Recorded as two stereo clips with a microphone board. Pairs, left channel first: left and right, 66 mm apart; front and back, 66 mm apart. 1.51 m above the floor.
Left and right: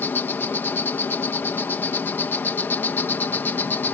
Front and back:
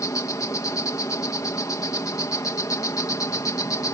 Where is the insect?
30° left.